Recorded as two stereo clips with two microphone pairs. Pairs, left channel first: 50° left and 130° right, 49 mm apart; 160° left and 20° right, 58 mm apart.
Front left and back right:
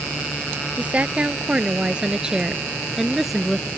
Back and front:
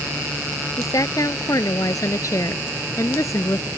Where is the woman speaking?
170° left; by 3.7 s 140° left.